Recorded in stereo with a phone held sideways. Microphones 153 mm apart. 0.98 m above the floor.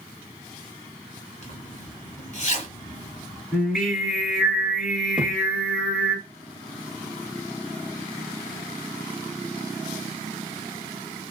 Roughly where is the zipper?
Left.